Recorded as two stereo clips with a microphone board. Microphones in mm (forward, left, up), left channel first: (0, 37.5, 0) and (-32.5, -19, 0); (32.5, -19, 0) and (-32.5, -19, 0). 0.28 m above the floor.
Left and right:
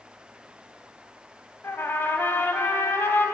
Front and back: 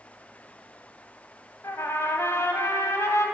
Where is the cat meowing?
I don't hear a cat meowing.